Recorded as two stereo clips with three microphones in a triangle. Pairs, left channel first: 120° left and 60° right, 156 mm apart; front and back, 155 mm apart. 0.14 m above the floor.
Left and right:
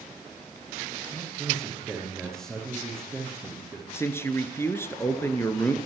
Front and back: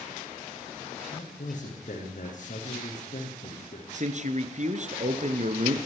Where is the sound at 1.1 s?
35° left, 8.5 m.